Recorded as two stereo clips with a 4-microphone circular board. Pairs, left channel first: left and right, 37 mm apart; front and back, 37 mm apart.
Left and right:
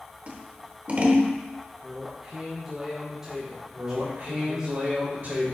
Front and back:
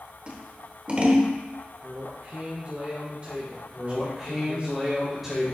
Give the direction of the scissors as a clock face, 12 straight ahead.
4 o'clock.